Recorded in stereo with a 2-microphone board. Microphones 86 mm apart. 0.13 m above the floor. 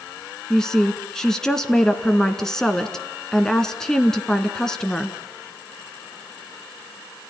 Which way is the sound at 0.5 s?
5° left (ahead or behind).